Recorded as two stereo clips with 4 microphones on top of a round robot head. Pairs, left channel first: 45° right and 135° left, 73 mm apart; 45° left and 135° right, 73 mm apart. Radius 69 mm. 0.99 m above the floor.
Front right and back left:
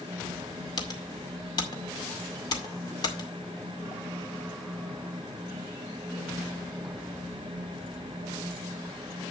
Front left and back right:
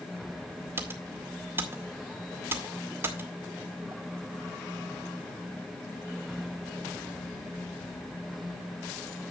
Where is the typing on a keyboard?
75° right, 2 m.